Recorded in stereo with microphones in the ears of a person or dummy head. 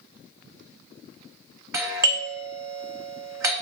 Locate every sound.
1.7 s a doorbell: 20° right (ahead or behind), 0.7 m